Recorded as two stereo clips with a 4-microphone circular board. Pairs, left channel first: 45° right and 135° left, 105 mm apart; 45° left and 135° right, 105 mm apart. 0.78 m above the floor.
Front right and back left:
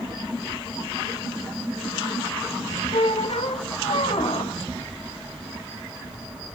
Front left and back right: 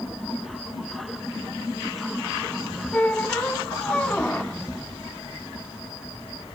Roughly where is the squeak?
Ahead right.